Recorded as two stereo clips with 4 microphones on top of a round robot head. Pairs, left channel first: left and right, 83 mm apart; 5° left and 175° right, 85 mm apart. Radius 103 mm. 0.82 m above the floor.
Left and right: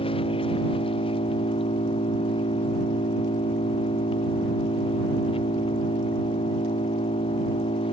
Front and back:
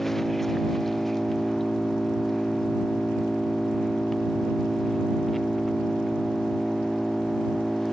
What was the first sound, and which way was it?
An engine running, 95° left.